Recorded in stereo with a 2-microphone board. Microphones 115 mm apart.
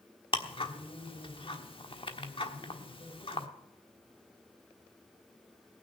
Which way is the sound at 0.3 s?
50° left (ahead or behind).